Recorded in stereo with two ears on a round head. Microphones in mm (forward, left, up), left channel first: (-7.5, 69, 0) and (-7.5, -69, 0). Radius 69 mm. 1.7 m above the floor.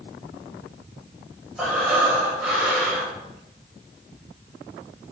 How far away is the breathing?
About 5.5 m.